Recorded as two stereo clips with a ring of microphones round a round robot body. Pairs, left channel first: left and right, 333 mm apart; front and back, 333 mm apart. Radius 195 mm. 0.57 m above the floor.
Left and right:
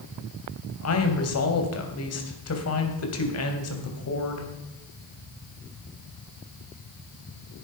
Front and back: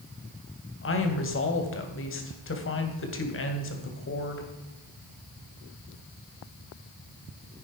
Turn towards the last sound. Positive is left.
turn(degrees=50)